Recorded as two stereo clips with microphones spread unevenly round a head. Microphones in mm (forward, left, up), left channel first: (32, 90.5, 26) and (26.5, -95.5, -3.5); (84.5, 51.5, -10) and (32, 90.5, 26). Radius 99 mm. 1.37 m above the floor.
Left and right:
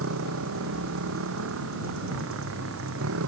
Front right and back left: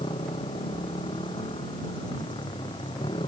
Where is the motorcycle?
80° right.